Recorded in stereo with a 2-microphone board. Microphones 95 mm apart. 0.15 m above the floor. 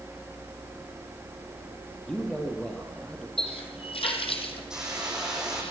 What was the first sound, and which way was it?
A man speaking, 10° left (ahead or behind).